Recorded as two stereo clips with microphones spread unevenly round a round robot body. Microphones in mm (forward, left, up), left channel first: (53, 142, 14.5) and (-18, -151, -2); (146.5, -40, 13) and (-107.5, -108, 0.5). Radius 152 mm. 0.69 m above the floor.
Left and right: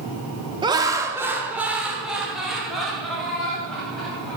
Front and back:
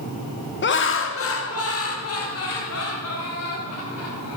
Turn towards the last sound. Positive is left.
turn(degrees=-10)